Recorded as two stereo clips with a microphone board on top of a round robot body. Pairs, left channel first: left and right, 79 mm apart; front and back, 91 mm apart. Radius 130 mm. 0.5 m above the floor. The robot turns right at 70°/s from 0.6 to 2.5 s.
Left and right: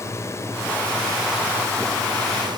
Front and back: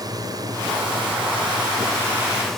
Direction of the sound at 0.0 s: 140° left.